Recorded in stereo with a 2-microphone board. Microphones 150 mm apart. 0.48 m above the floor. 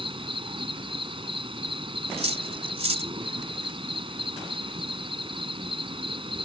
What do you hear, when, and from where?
0.0 s an insect: 35° right (ahead or behind)
2.2 s cutlery clinking: 45° right (ahead or behind)